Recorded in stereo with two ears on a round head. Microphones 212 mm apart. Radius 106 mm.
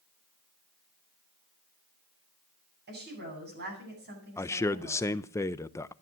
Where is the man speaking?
10° left (ahead or behind), 0.5 m.